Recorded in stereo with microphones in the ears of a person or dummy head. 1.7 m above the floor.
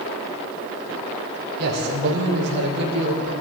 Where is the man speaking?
60° right (ahead or behind), 6 m; by 3.3 s 70° right (ahead or behind), 6.5 m.